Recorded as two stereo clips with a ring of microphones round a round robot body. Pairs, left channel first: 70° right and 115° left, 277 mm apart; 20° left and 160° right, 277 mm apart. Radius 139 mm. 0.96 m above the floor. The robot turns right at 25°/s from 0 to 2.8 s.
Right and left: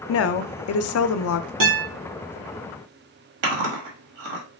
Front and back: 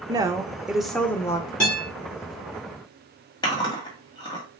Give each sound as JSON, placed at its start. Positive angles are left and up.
{"t": 0.1, "sound": "a woman speaking", "azimuth_deg": -85, "distance_m": 0.5}
{"t": 1.6, "sound": "a guitar", "azimuth_deg": 110, "distance_m": 2.5}
{"t": 3.4, "sound": "chewing", "azimuth_deg": 100, "distance_m": 1.5}